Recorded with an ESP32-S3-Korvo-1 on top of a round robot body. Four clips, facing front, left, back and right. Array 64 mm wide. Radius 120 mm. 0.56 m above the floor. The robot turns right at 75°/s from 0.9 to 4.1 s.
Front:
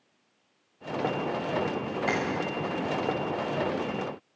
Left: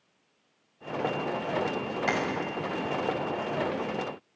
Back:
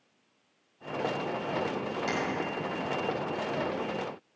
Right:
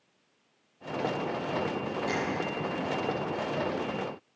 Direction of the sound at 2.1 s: 60° left.